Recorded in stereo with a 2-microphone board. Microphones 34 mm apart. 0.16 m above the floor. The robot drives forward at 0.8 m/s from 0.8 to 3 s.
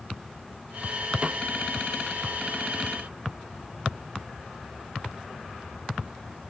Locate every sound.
1.2 s a snare drum: 40° right (ahead or behind)